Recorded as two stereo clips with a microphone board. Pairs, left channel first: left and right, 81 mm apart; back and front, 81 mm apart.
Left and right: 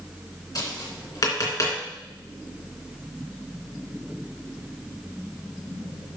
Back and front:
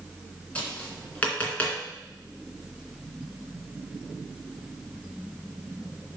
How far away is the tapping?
About 2.5 m.